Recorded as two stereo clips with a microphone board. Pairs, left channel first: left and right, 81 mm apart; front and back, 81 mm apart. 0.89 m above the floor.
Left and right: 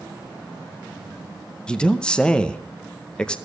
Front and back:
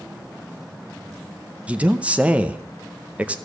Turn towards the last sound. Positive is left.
turn(degrees=145)